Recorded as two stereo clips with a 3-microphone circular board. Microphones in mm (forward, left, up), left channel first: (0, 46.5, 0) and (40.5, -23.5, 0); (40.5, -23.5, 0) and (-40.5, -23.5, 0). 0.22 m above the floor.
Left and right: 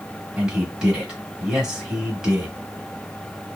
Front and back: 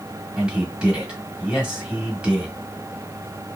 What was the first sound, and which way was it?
A man speaking, 120° right.